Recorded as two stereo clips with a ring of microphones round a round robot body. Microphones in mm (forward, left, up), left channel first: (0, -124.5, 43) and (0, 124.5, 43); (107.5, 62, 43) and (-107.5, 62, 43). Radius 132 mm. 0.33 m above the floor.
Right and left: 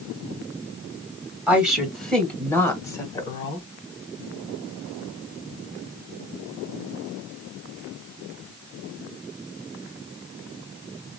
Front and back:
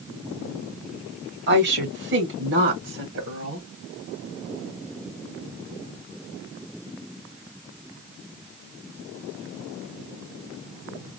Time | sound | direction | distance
1.5 | a woman speaking | 175° left | 2.5 m